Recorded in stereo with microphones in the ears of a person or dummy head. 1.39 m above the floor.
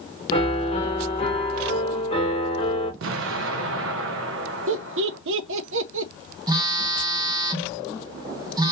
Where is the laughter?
80° right, 0.6 m.